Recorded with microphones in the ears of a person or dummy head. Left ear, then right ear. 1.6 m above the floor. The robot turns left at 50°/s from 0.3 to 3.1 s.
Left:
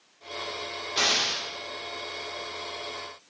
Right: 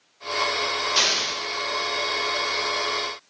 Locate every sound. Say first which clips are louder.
1.0 s an explosion: even; 70° right (ahead or behind), 4 m; by 1.4 s 80° right, 4 m